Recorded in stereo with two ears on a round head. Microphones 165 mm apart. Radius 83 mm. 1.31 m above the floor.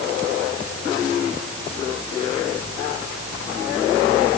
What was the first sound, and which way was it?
Only background noise.